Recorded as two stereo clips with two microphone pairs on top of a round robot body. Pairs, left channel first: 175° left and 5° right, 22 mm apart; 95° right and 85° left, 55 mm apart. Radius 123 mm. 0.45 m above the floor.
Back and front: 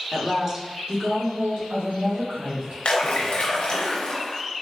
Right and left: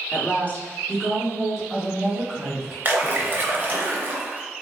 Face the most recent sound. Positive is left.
turn(degrees=140)